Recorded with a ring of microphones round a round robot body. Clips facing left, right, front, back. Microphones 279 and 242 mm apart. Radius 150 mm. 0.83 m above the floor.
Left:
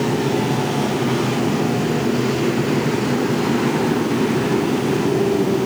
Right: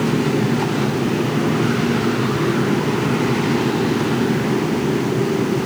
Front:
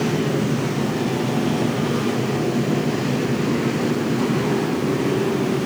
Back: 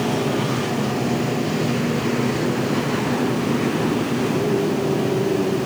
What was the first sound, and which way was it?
Only background noise.